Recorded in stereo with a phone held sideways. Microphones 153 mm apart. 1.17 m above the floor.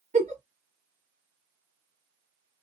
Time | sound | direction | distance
0.1 | a giggle | 55° right (ahead or behind) | 1.6 m